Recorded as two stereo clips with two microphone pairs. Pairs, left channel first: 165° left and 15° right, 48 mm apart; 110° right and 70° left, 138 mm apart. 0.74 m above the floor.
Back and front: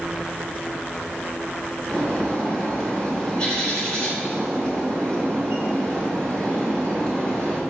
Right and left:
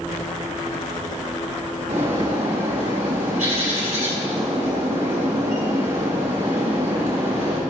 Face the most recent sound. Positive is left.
turn(degrees=95)